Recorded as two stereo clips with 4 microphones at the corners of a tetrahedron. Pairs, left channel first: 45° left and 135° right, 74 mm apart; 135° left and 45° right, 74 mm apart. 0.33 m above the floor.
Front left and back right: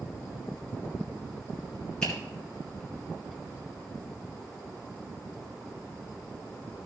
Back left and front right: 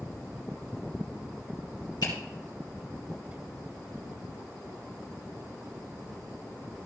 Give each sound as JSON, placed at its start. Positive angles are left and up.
{"t": 2.0, "sound": "a finger snap", "azimuth_deg": 120, "distance_m": 4.5}